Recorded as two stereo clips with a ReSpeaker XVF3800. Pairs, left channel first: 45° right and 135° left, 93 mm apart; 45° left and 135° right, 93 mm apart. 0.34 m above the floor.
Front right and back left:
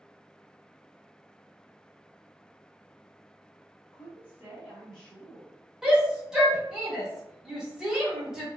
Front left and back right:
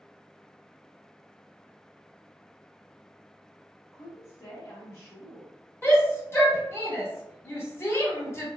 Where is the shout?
60° left, 1.0 m.